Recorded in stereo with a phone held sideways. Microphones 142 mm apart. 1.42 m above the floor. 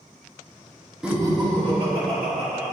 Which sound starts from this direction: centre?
Laughter, at 1.0 s.